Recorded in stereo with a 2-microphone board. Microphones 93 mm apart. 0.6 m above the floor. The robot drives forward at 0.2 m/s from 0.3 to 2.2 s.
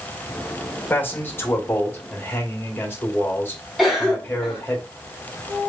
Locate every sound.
0.9 s a man speaking: 20° left (ahead or behind), 1.8 m
3.8 s a cough: centre (ahead or behind), 2 m